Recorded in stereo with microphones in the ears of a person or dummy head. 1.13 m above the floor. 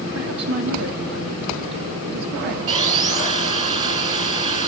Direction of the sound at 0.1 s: 85° right.